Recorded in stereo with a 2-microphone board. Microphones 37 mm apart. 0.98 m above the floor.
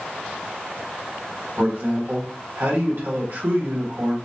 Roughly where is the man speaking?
Right.